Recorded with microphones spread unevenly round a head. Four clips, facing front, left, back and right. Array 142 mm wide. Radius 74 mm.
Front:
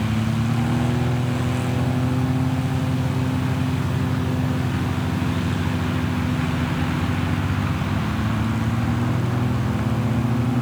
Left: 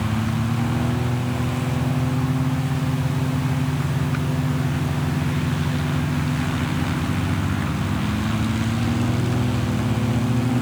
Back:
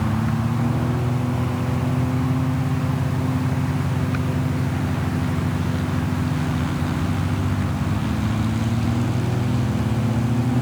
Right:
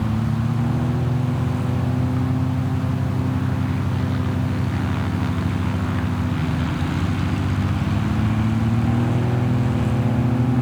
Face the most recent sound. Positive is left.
No sound to turn to.